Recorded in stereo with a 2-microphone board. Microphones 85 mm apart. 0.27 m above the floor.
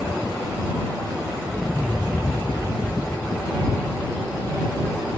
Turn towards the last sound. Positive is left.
turn(degrees=15)  # may be behind; listen again after turning